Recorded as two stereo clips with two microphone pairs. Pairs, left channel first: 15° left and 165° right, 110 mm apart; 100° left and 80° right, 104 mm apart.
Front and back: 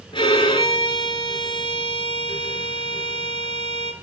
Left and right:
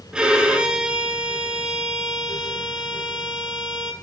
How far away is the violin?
About 0.8 m.